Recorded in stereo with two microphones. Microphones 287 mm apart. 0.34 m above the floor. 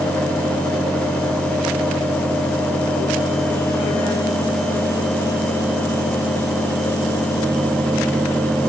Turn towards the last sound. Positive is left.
No sound to turn to.